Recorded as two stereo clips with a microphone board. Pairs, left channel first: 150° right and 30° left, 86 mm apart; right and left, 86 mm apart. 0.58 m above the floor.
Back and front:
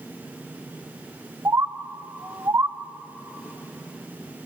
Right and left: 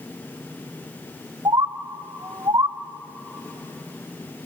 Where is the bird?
75° left, 0.7 m.